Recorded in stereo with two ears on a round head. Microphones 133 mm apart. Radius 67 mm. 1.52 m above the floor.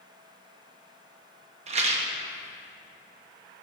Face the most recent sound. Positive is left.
turn(degrees=-45)  # may be behind; listen again after turning